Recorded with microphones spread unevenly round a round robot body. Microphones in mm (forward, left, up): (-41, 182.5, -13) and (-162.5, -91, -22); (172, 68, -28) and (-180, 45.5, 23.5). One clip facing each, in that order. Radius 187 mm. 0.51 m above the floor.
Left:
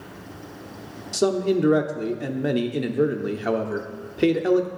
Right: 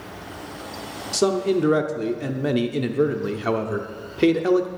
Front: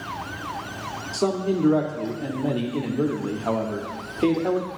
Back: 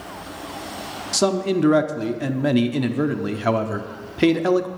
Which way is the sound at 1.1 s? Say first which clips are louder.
Right 1 dB, back 3 dB; 165° left.